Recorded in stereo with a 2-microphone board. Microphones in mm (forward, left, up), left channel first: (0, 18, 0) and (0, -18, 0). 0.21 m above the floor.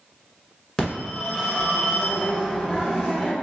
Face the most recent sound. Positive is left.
turn(degrees=10)  # may be behind; listen again after turning